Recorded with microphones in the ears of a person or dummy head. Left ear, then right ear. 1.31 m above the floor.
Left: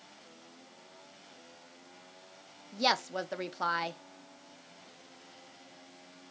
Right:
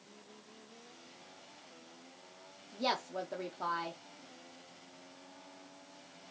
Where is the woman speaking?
35° left (ahead or behind), 0.6 m.